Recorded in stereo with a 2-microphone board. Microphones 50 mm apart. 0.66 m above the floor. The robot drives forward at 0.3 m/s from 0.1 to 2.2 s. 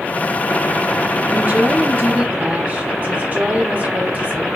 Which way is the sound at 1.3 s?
40° right (ahead or behind).